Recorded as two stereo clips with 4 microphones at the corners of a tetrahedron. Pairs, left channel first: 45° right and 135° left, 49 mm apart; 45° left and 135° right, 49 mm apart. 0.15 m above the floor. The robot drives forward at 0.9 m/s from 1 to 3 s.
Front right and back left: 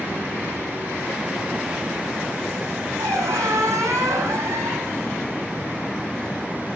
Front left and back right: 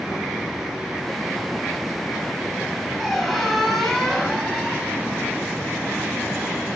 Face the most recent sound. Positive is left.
turn(degrees=140)